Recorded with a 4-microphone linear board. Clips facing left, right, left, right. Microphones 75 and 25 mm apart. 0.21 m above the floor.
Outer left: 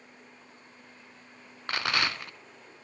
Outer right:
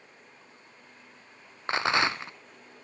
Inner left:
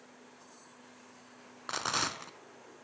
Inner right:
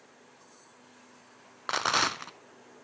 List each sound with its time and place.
1.7 s a rattle: 25° right (ahead or behind), 0.6 m